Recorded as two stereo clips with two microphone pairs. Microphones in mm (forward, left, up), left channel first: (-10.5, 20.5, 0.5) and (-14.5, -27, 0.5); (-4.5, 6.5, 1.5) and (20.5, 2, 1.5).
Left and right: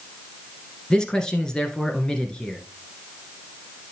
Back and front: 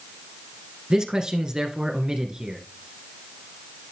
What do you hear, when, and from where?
0.9 s a man speaking: 25° left, 1.7 m